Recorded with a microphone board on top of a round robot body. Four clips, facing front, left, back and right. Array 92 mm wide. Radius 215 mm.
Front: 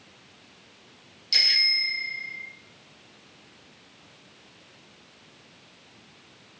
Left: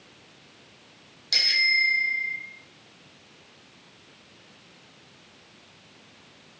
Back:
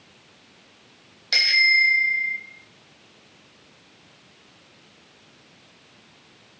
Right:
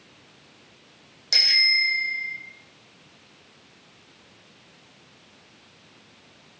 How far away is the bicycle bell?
About 3.5 m.